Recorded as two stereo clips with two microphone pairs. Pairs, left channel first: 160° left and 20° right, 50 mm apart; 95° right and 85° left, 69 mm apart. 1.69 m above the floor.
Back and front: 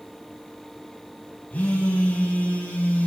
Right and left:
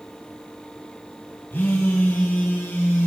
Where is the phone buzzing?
145° right, 2.5 m.